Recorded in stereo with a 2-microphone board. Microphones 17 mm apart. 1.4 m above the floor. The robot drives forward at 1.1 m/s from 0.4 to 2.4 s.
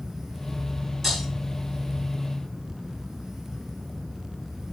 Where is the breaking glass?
10° left (ahead or behind), 8.5 m.